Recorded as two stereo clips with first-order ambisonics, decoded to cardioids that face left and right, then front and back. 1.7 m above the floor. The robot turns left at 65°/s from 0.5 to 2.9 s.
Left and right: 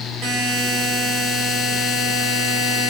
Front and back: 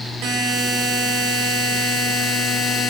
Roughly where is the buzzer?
Behind right.